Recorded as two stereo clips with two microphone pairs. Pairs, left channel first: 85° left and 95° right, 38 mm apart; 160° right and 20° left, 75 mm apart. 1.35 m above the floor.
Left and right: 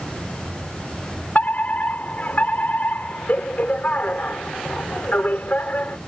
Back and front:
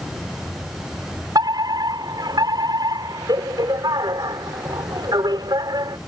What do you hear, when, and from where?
1.4 s a fire alarm: 40° left